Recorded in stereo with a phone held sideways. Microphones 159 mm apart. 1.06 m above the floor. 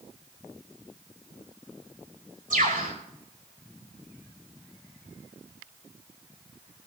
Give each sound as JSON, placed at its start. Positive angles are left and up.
{"t": 2.5, "sound": "a bird", "side_deg": -60, "distance_m": 5.0}